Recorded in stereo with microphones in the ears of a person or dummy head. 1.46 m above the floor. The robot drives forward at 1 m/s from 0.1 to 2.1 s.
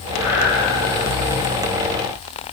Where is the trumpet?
I don't hear a trumpet.